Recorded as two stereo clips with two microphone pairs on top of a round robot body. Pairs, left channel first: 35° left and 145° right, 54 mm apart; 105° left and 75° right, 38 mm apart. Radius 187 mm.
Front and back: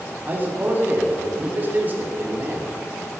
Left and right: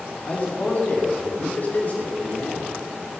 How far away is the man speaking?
About 3 m.